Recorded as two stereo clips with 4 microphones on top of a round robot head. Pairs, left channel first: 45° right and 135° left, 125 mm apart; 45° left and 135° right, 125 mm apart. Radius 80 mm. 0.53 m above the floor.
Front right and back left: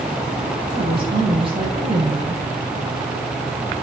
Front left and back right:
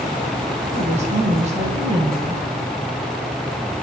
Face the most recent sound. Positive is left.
turn(degrees=-175)